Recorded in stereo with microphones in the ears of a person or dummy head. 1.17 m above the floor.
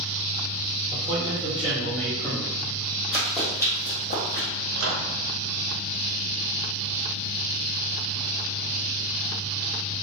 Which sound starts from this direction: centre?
Running footsteps, at 3.1 s.